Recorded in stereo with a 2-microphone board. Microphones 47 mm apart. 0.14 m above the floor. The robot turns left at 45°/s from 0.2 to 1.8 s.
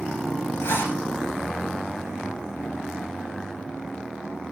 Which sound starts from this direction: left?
A zipper, at 0.6 s.